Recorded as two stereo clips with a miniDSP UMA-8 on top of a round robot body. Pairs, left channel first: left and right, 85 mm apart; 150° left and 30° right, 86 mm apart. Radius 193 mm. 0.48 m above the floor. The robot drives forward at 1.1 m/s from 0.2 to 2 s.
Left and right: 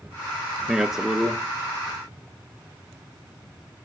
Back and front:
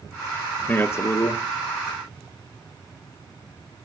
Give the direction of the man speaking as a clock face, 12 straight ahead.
6 o'clock.